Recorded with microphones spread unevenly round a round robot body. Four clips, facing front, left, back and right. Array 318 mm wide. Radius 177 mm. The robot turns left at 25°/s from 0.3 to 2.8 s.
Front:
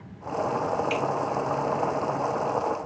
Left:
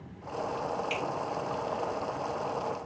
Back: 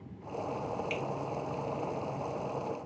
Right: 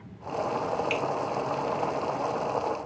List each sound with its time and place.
0.9 s a finger snap: 75° right, 1.1 m; by 1.0 s 80° right, 1.1 m